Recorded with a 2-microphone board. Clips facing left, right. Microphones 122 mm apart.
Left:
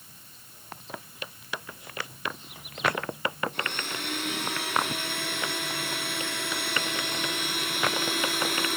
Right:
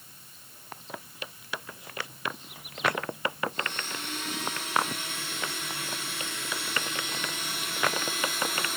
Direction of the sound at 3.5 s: 65° left (ahead or behind).